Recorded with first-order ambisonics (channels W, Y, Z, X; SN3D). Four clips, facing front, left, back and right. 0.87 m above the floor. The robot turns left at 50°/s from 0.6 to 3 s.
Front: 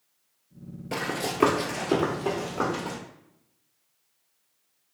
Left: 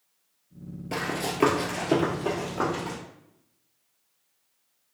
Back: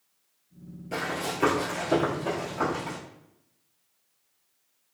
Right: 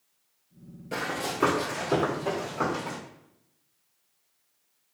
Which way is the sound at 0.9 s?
40° left.